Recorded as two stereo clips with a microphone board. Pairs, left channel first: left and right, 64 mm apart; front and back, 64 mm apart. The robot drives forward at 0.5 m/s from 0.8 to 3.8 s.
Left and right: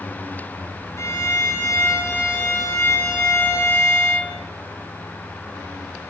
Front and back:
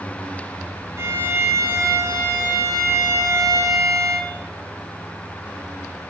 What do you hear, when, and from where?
1.0 s a violin: 130° left, 4.5 m; by 4.3 s 140° left, 5 m